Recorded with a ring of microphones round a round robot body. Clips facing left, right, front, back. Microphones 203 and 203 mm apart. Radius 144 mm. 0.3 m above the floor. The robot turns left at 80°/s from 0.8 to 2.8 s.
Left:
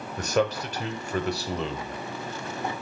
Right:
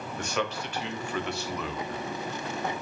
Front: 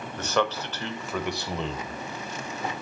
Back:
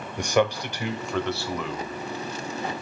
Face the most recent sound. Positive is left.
turn(degrees=-50)